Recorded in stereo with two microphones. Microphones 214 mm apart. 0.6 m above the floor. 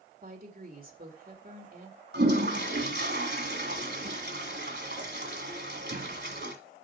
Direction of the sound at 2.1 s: 50° right (ahead or behind).